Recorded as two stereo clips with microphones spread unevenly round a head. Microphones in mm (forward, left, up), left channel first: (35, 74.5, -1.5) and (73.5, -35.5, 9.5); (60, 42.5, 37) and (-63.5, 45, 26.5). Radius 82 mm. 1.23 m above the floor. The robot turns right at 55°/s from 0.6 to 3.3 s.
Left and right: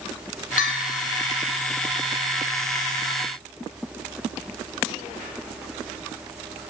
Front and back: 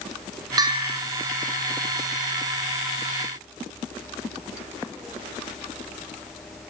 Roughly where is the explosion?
No explosion in this recording.